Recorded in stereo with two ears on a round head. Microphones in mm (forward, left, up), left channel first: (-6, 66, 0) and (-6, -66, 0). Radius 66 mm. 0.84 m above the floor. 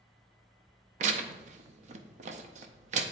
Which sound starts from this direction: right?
Tearing paper, at 1.0 s.